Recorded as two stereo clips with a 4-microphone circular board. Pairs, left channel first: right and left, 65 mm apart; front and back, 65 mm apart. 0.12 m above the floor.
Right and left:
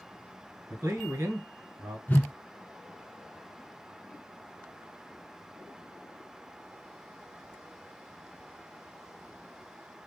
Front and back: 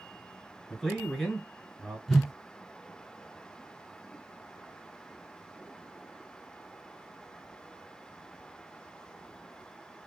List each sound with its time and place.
0.7 s a man speaking: 90° left, 1.7 m
2.1 s a whoosh: 80° right, 0.5 m